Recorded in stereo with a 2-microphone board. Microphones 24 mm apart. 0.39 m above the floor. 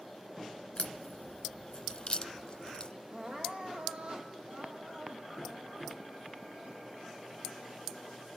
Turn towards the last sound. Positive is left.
turn(degrees=-55)  # may be behind; listen again after turning